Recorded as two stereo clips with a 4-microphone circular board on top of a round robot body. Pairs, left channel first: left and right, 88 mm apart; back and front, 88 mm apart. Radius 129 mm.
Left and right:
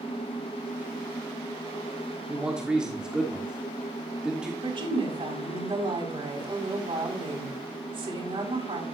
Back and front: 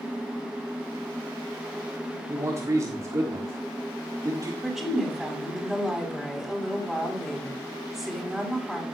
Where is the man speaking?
20° right, 1.5 m.